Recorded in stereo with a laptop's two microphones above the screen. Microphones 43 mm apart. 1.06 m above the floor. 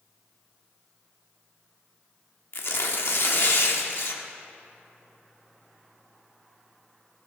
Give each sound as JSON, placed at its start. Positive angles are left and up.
{"t": 2.5, "sound": "tearing paper", "side_deg": 65, "distance_m": 1.1}